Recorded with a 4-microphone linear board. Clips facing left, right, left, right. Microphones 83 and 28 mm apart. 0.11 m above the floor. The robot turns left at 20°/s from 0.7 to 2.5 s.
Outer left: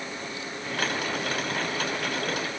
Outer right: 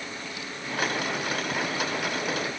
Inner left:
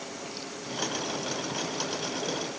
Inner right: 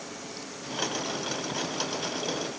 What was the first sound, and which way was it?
Only background noise.